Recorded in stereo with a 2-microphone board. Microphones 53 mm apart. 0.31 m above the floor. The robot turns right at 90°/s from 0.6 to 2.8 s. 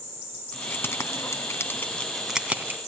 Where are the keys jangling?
30° left (ahead or behind), 1.7 m; by 2.8 s 45° right (ahead or behind), 1.7 m.